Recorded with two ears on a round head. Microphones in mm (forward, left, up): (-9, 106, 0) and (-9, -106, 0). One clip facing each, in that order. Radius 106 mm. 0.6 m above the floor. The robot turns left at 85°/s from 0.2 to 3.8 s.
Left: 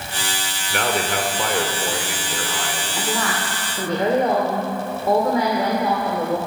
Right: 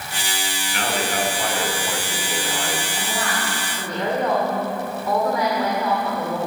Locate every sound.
0.7 s a man speaking: 130° left, 2 m; by 2.9 s 50° right, 2 m
3.0 s a woman speaking: 100° left, 2 m; by 6.4 s 30° left, 2 m